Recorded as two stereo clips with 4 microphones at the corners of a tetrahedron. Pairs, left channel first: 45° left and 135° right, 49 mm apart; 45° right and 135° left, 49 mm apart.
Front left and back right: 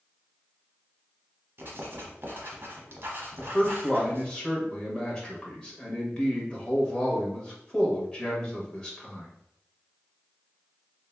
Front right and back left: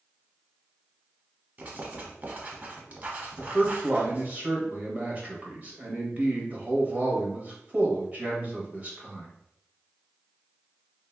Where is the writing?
170° right, 0.8 m.